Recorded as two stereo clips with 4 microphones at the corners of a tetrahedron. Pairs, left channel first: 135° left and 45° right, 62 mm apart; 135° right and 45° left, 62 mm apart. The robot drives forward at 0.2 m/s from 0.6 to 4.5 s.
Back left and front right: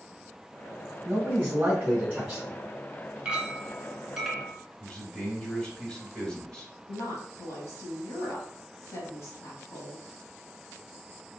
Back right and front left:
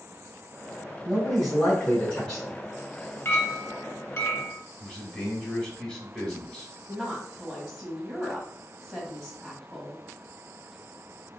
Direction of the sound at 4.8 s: 175° right.